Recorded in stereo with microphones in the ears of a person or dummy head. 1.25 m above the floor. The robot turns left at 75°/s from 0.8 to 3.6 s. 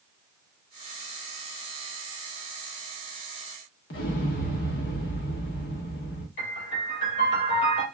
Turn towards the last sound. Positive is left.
turn(degrees=55)  # may be behind; listen again after turning